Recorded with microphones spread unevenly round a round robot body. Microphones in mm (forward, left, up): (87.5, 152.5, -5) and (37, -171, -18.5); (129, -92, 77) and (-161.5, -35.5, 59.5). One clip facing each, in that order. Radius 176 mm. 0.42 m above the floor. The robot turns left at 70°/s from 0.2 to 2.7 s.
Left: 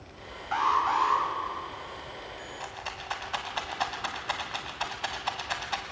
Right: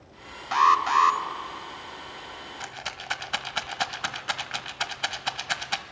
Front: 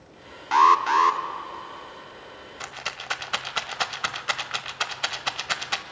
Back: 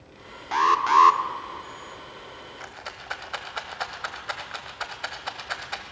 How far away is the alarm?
About 1.2 m.